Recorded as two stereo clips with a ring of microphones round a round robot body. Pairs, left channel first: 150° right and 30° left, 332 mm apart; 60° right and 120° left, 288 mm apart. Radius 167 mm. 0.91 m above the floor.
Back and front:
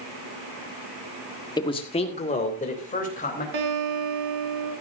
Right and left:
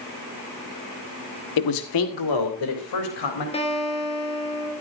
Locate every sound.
1.6 s a man speaking: 70° right, 1.2 m; by 3.4 s 85° right, 4 m
3.5 s a guitar: 10° left, 4 m